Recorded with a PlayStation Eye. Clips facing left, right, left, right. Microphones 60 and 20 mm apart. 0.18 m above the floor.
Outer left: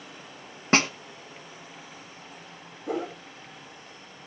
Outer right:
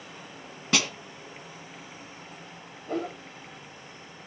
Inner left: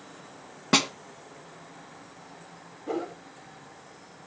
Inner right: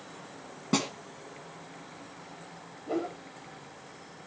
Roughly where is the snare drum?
Left.